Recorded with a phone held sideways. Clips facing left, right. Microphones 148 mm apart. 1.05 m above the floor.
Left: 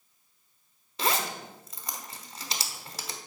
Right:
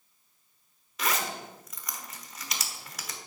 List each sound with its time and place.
1.0 s a zipper: 30° left (ahead or behind), 1.3 m